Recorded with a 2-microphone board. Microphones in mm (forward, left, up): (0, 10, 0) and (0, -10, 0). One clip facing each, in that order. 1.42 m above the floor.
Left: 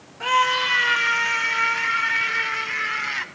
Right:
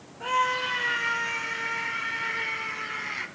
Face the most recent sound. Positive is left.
turn(degrees=90)